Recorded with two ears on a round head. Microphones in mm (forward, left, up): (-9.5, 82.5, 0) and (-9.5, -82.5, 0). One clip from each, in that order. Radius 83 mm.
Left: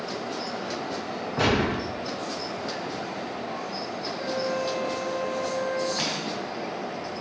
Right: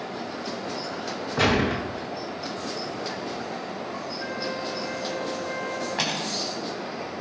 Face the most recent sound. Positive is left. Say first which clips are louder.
# right 2 dB
turn(degrees=-30)  # may be behind; listen again after turning